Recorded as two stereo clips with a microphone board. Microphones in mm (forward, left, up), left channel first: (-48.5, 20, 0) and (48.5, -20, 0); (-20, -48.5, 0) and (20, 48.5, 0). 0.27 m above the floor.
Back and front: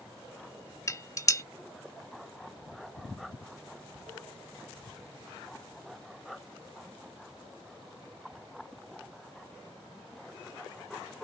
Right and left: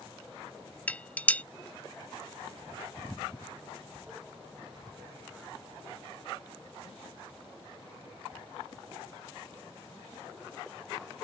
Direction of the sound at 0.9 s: 175° right.